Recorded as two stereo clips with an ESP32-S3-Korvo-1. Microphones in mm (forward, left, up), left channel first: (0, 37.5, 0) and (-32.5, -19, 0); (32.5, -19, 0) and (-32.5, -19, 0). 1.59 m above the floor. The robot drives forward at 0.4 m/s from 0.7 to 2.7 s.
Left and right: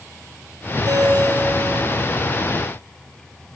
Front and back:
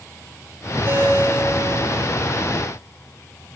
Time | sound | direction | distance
0.8 | a ringtone | 135° right | 4.5 m